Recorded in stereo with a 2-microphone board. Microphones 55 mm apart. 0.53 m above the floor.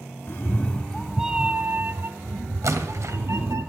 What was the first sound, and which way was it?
A cat meowing, 40° left (ahead or behind).